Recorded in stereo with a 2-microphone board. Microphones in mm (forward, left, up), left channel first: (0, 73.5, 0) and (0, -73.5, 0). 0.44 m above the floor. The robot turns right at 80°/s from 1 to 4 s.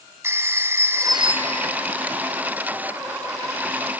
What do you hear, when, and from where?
0.2 s a phone ringing: 160° right, 2.5 m; by 1.7 s 105° right, 2.5 m